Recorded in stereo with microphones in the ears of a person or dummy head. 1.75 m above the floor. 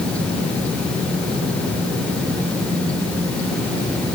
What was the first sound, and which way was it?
Only background noise.